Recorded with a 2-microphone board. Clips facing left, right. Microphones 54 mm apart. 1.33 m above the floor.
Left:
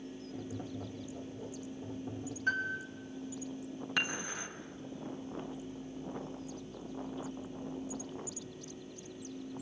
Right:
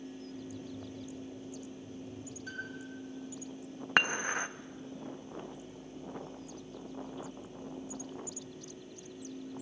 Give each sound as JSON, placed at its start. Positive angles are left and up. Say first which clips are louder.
{"t": 0.3, "sound": "tapping", "louder": "left 2 dB", "side_deg": 45, "distance_m": 2.5}
{"t": 2.5, "sound": "a piano", "louder": "left 10 dB", "side_deg": 50, "distance_m": 3.0}
{"t": 4.0, "sound": "dishes clattering", "louder": "right 8 dB", "side_deg": -50, "distance_m": 0.9}